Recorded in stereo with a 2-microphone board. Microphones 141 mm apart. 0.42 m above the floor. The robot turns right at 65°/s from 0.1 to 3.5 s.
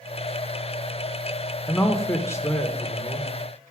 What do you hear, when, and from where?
1.7 s a man speaking: 20° left (ahead or behind), 0.8 m; by 3.3 s 5° left (ahead or behind), 0.8 m